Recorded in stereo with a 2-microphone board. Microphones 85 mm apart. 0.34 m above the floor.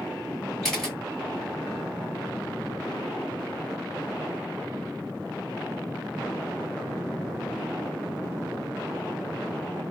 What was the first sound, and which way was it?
A camera shutter, 5° left (ahead or behind).